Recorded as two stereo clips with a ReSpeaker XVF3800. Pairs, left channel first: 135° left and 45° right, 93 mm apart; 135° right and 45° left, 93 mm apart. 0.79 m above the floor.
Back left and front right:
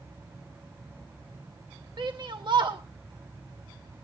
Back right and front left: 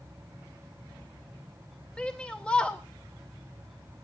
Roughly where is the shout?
Ahead right.